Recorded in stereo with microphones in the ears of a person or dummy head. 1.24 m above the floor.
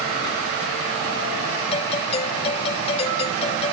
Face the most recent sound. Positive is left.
turn(degrees=30)  # may be behind; listen again after turning